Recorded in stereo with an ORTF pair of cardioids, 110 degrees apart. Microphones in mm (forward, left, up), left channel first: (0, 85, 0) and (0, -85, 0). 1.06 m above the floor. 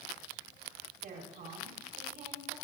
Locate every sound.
1.0 s a woman speaking: 60° right, 6 m